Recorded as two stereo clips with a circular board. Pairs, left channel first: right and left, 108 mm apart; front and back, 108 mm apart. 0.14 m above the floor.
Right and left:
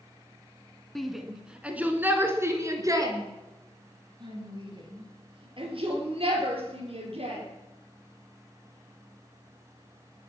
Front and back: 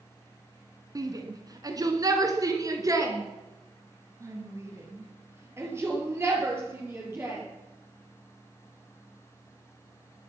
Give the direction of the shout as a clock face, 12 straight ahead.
6 o'clock.